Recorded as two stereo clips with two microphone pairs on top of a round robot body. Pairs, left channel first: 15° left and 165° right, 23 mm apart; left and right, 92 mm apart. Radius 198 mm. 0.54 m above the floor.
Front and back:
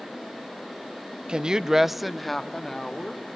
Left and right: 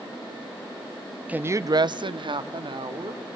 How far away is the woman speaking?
About 1.0 m.